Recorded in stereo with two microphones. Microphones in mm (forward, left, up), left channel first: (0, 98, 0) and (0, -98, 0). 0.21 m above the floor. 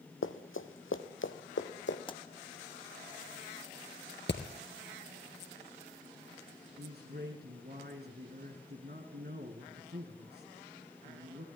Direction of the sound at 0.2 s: 85° left.